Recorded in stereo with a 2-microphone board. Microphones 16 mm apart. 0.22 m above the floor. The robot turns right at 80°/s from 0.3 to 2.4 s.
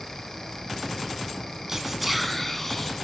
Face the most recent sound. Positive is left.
turn(degrees=15)